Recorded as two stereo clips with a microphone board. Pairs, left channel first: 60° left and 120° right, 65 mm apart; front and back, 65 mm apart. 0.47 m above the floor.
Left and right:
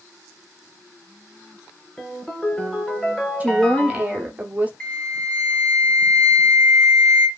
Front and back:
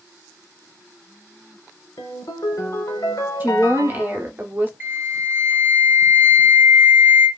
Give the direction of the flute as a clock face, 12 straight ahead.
8 o'clock.